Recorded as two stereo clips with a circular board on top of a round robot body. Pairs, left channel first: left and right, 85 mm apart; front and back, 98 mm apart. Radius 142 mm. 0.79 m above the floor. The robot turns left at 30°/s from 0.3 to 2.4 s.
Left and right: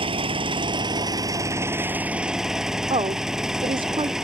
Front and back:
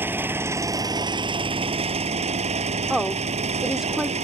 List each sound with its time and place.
0.0 s an engine running: 110° right; by 4.3 s 175° right
2.9 s a woman speaking: 95° right